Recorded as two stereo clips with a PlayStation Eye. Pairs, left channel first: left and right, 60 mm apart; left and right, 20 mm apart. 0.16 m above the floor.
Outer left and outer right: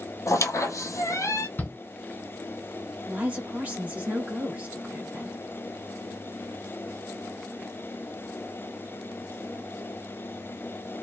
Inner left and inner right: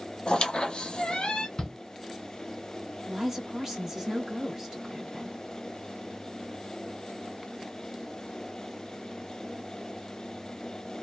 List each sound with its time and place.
0.3 s a squeak: 60° left (ahead or behind), 0.7 m
1.6 s a shout: 30° left (ahead or behind), 1.8 m
3.1 s a woman speaking: 25° right (ahead or behind), 1.8 m